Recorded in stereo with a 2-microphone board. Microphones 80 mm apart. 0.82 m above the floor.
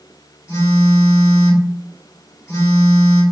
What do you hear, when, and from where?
0.5 s a phone buzzing: 35° left (ahead or behind), 1.3 m